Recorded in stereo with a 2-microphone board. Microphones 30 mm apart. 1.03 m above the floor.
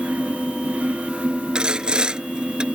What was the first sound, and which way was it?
Sawing, 30° right (ahead or behind).